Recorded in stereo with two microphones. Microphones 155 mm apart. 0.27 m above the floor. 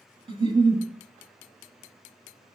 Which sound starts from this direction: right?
A giggle, at 0.3 s.